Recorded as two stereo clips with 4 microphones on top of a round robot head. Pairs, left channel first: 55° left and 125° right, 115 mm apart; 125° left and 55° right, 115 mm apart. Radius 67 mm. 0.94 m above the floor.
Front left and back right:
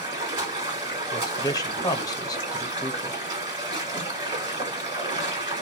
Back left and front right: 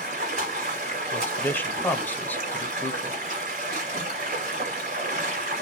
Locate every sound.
0.0 s running water: 75° right, 1.6 m
1.1 s a man speaking: 65° left, 0.7 m